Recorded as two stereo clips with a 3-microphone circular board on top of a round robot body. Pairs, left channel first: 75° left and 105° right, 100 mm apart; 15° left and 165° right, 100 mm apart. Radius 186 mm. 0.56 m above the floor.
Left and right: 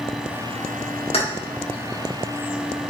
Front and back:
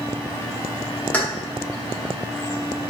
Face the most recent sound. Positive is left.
turn(degrees=90)